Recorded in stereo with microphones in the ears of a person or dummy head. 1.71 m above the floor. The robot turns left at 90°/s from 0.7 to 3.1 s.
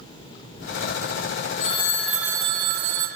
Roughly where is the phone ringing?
Ahead left.